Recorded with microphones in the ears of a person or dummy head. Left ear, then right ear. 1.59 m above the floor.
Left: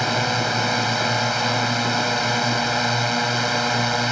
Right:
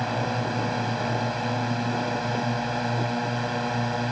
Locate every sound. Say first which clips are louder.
0.0 s a drone: left 6 dB; 80° left